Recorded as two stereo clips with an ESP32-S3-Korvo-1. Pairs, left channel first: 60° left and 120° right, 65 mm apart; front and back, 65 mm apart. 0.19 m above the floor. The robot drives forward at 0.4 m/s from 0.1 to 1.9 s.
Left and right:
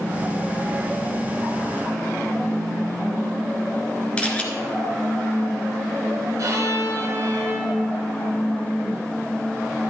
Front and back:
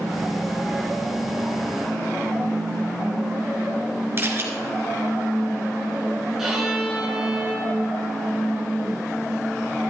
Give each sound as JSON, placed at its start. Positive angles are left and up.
{"t": 4.2, "sound": "a camera shutter", "azimuth_deg": 130, "distance_m": 1.6}
{"t": 6.4, "sound": "a violin", "azimuth_deg": -95, "distance_m": 2.5}